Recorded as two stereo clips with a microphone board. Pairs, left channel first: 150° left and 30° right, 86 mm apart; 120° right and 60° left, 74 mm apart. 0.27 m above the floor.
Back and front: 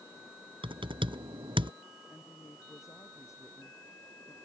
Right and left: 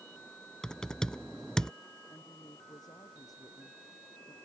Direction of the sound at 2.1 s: 155° right.